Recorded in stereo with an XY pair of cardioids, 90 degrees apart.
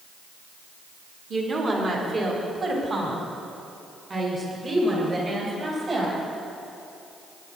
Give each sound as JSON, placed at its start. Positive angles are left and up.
{"t": 1.3, "sound": "a woman speaking", "azimuth_deg": -55, "distance_m": 3.0}